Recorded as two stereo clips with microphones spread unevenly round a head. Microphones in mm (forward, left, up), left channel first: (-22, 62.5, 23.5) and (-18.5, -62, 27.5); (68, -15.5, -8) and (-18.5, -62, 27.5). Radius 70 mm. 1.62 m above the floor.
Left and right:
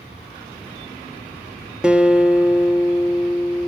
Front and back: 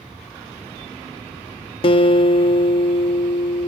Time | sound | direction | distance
1.8 | a guitar | 10° right | 1.3 m